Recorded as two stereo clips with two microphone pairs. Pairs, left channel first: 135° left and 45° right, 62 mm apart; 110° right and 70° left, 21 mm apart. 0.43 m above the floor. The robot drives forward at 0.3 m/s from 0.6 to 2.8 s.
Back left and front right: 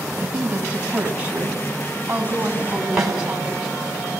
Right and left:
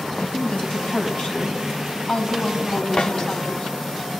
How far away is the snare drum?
About 4 m.